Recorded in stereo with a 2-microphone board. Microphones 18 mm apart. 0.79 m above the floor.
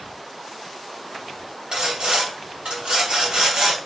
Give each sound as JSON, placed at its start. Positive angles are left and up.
{"t": 1.7, "sound": "sawing", "side_deg": -55, "distance_m": 2.5}